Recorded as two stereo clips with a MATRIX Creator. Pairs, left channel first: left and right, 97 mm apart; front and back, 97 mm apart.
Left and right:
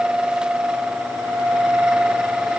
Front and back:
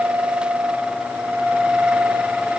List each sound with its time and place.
Only background noise.